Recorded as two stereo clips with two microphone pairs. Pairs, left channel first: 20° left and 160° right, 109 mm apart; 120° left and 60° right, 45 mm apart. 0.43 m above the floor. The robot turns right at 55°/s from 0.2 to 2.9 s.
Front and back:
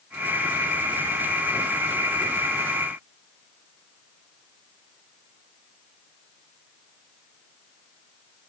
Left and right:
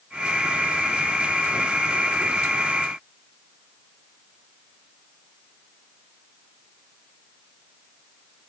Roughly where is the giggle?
I don't hear a giggle.